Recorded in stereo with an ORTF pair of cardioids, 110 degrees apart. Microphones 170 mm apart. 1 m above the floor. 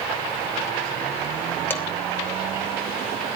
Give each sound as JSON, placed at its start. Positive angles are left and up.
{"t": 1.7, "sound": "dishes clattering", "azimuth_deg": 10, "distance_m": 3.0}